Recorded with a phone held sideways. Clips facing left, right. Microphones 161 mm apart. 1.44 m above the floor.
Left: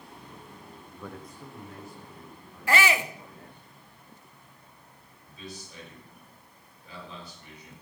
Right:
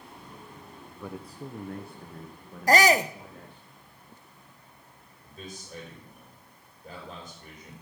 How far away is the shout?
About 0.7 m.